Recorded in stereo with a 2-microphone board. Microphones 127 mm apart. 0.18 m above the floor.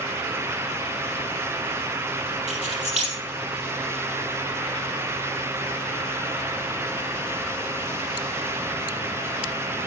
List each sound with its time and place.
2.5 s keys jangling: 70° right (ahead or behind), 3.5 m